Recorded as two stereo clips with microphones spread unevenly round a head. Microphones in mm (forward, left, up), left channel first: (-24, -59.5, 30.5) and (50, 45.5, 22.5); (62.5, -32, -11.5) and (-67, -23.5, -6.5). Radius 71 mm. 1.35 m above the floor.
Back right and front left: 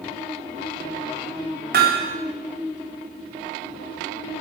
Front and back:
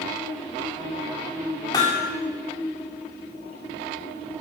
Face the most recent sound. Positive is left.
turn(degrees=65)